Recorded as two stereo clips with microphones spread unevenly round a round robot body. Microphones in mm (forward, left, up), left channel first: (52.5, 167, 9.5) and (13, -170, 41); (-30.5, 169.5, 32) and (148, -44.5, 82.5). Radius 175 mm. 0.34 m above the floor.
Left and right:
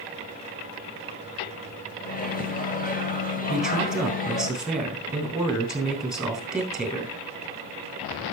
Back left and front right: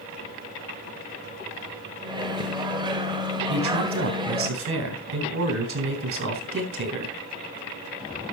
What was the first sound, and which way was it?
A microwave, 30° left.